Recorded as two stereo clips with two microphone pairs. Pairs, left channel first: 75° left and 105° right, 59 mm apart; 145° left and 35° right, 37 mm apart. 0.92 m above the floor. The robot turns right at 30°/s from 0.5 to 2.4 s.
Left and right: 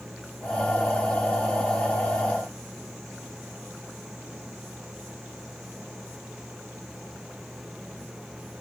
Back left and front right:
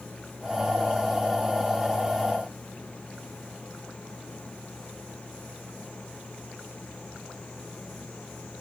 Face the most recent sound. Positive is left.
No sound to turn to.